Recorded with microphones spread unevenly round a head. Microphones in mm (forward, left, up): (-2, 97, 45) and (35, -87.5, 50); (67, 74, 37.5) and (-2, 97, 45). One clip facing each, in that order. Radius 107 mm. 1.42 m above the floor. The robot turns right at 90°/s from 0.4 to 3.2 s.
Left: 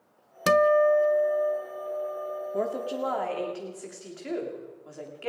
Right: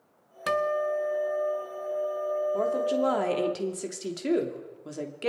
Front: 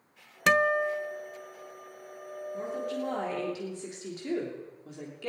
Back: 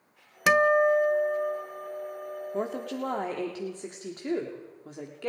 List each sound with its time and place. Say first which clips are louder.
0.5 s a guitar: left 7 dB, back 4 dB; 75° left, 0.7 m; by 3.5 s 40° right, 0.7 m
2.5 s a woman speaking: right 1 dB, back 1 dB; 175° left, 3 m; by 5.3 s 130° right, 3 m